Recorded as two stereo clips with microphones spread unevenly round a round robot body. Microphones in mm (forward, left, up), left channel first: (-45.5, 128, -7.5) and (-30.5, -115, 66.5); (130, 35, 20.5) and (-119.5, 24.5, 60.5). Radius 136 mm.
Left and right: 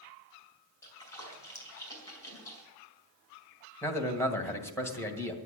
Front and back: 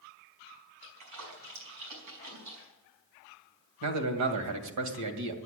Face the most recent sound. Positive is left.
turn(degrees=170)